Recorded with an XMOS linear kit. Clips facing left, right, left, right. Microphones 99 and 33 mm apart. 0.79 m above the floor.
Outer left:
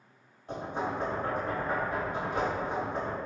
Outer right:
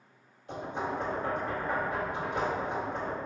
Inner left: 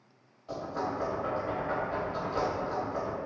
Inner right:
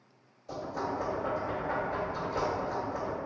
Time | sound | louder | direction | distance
0.5 | knocking | outer left 1 dB, inner left 1 dB | 40° left (ahead or behind) | 1.8 m